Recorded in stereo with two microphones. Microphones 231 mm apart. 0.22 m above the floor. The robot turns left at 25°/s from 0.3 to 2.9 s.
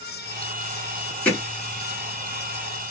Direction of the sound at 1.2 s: 5° left (ahead or behind).